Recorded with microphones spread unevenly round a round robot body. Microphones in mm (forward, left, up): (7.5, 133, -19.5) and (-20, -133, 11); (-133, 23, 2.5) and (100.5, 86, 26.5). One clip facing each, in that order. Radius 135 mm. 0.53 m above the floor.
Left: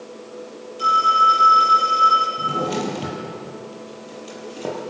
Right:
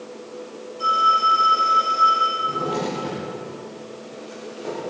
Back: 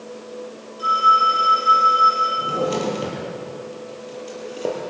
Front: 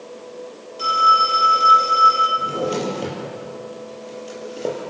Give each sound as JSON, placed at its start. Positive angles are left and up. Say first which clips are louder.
{"t": 0.8, "sound": "a phone ringing", "louder": "left 3 dB, front 1 dB", "azimuth_deg": 30, "distance_m": 7.5}
{"t": 2.4, "sound": "a drawer", "louder": "left 2 dB, back 1 dB", "azimuth_deg": 105, "distance_m": 7.0}